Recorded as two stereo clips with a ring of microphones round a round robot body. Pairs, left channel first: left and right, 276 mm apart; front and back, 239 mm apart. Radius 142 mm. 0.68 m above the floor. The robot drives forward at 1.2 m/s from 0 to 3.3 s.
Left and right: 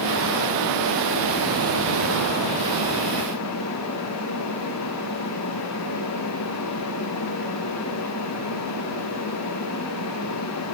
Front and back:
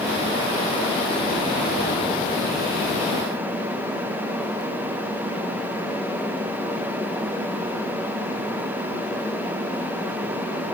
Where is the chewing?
No chewing in this recording.